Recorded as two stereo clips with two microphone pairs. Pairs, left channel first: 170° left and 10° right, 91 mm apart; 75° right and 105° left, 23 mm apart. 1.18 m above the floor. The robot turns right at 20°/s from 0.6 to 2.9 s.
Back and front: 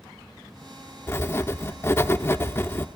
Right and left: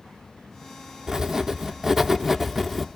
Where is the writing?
155° left, 0.8 m; by 3.0 s 165° right, 0.8 m.